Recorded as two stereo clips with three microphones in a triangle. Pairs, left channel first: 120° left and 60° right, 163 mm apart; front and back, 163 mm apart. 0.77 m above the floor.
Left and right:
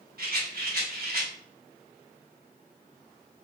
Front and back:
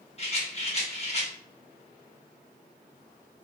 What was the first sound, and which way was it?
A rattle, 50° right.